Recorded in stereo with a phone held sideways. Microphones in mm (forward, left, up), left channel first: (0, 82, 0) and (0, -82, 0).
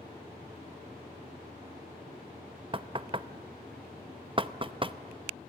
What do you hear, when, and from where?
2.7 s knocking: 30° right (ahead or behind), 0.6 m